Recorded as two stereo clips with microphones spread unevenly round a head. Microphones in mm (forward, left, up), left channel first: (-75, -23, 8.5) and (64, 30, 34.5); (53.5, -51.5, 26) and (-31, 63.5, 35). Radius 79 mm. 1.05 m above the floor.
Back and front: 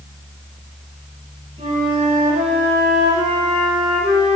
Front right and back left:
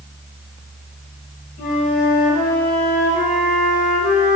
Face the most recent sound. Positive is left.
turn(degrees=-25)